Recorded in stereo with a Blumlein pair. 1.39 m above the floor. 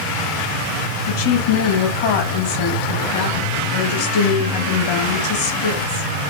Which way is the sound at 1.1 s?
55° left.